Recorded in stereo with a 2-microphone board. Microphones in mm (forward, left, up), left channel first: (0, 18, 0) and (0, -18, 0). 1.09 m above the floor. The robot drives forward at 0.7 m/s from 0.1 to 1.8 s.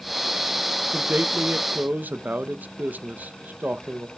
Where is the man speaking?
55° right (ahead or behind), 0.8 m; by 4.1 s 70° right (ahead or behind), 0.7 m.